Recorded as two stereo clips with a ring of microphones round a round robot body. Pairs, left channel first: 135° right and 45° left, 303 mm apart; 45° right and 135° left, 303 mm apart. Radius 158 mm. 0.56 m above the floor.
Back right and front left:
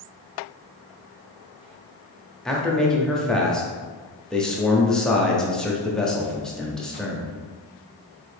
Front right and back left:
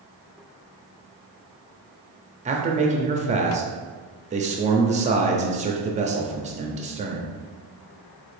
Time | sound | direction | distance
2.5 | a man speaking | 140° left | 0.7 m